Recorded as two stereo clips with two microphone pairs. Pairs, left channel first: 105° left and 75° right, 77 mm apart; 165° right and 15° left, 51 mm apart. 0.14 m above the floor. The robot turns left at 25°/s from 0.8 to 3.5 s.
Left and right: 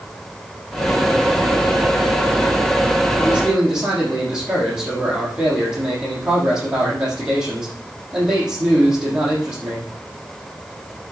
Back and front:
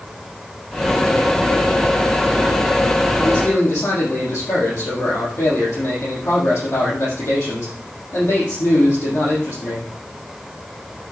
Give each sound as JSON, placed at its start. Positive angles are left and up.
{"t": 3.2, "sound": "a man speaking", "azimuth_deg": -145, "distance_m": 6.0}